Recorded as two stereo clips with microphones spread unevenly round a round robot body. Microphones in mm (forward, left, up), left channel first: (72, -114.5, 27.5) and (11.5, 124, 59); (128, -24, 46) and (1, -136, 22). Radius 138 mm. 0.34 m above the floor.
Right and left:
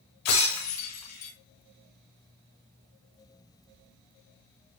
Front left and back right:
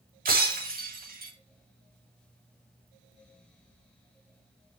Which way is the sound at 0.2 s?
105° right.